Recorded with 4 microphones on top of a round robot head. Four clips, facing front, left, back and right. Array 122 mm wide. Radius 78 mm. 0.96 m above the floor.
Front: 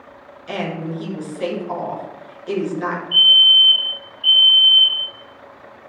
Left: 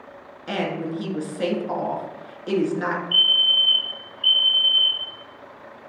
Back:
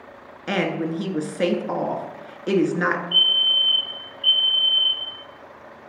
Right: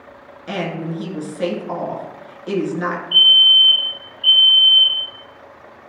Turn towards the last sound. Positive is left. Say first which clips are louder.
# right 7 dB, front 7 dB
turn(degrees=80)